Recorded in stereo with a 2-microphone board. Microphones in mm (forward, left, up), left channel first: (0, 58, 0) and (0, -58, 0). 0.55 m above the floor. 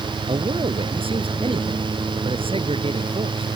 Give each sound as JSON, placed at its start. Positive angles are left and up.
{"t": 0.3, "sound": "a man speaking", "side_deg": -50}